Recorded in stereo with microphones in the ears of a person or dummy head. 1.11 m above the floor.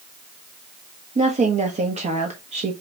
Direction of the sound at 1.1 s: 35° right (ahead or behind).